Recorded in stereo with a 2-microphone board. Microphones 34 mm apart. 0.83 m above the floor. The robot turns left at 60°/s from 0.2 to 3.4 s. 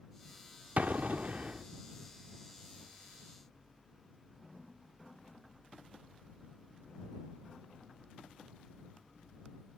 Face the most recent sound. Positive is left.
turn(degrees=120)